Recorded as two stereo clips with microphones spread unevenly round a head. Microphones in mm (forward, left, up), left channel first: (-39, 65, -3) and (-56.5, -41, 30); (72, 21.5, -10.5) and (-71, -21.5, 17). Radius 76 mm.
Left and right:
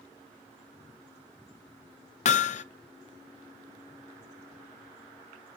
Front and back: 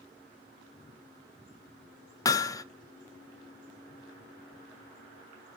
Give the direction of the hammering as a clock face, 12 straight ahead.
9 o'clock.